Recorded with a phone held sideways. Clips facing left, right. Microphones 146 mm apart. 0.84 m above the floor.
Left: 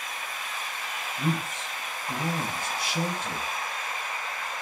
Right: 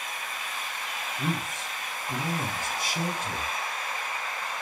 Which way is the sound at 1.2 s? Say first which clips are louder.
Left 2 dB; 65° left (ahead or behind).